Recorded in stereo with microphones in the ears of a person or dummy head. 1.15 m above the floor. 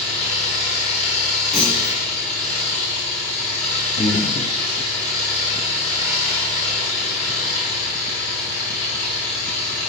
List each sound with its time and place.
0.0 s an engine running: 5° left (ahead or behind), 4 m
1.5 s a clunk: 30° left (ahead or behind), 2.5 m
4.0 s breathing: 30° left (ahead or behind), 1.4 m